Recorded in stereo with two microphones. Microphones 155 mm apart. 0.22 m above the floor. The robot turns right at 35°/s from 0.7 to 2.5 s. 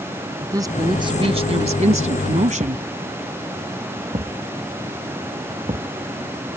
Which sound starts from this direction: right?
A thud, at 2.6 s.